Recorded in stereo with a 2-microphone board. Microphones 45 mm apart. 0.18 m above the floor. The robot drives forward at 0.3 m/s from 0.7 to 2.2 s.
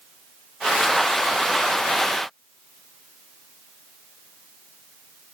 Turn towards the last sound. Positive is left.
No sound to turn to.